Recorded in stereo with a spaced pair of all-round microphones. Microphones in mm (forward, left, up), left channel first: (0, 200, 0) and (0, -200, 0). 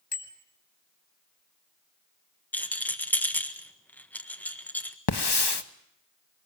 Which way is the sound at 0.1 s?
75° left (ahead or behind).